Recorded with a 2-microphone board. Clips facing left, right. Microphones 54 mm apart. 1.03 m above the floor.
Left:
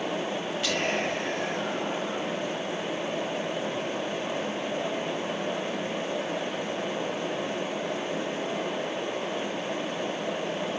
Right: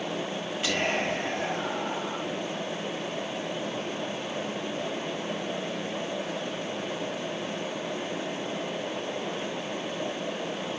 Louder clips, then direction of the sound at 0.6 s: Right 1 dB; 15° right (ahead or behind).